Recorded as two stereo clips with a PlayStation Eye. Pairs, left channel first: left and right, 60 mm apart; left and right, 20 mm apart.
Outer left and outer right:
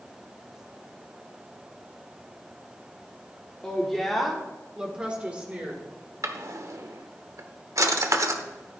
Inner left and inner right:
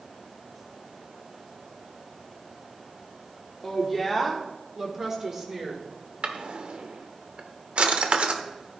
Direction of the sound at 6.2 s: 65° right (ahead or behind).